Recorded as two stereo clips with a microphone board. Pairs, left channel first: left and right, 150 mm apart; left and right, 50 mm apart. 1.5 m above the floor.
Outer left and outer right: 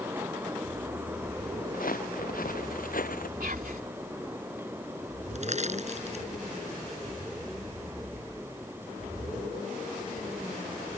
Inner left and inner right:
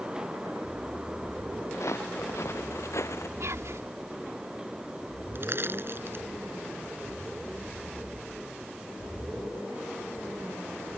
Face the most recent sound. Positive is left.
turn(degrees=-50)  # may be behind; listen again after turning